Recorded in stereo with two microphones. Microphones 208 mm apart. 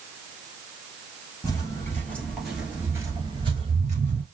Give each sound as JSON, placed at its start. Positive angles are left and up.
{"t": 1.4, "sound": "footsteps", "side_deg": 20, "distance_m": 1.5}